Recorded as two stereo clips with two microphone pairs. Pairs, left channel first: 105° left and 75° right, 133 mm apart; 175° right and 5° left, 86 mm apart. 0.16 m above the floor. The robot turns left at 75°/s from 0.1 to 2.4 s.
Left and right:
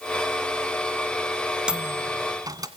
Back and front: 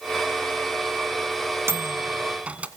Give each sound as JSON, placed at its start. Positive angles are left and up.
{"t": 1.7, "sound": "a microwave", "azimuth_deg": 0, "distance_m": 1.4}